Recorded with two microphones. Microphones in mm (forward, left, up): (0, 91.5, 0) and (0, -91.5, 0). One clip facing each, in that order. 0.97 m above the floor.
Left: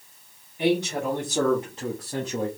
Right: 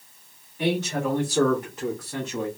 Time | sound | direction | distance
0.6 | a man speaking | 15° left (ahead or behind) | 1.9 m